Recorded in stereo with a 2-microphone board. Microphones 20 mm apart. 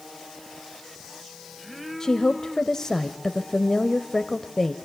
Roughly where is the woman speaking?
Left.